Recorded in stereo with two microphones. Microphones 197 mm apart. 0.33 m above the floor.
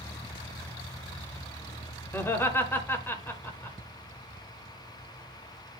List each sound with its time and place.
2.1 s laughter: 10° left (ahead or behind), 1.1 m